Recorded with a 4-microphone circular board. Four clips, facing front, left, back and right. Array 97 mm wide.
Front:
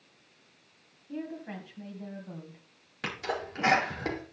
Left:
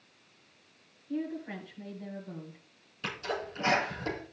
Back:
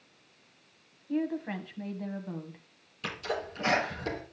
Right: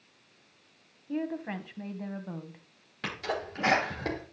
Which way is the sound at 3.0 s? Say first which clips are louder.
Right 2 dB, even; 35° right.